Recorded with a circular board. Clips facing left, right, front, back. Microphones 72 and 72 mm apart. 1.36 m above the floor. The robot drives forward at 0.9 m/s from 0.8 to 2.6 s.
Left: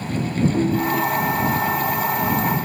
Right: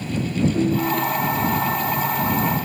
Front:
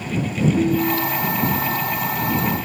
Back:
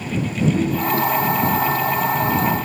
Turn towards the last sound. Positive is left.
turn(degrees=105)